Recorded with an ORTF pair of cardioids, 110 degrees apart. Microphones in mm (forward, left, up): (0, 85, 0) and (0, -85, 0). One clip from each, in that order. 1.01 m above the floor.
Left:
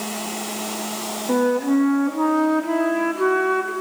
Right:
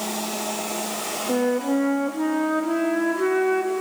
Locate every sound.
1.3 s a flute: 30° left, 1.4 m